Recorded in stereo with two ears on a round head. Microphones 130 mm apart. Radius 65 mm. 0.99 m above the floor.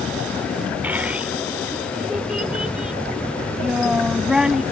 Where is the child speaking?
10° right (ahead or behind); by 4.6 s 5° right (ahead or behind).